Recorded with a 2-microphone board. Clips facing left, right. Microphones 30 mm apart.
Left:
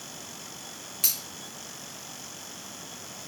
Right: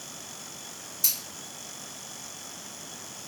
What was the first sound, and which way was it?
Scissors, 75° left (ahead or behind).